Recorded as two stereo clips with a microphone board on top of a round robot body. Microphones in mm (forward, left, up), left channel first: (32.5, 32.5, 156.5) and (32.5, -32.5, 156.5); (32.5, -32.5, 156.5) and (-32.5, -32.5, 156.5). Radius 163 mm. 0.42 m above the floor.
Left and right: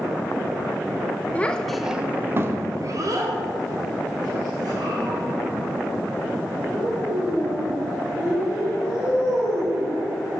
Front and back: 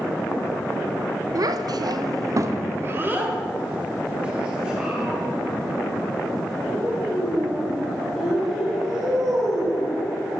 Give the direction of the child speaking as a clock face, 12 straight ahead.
7 o'clock.